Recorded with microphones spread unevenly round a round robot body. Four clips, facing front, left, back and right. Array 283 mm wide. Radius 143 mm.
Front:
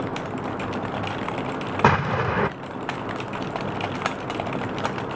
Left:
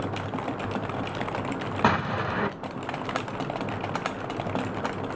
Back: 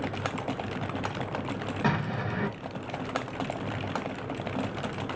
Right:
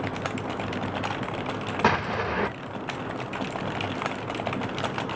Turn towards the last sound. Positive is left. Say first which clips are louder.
# even, front 10 dB
turn(degrees=5)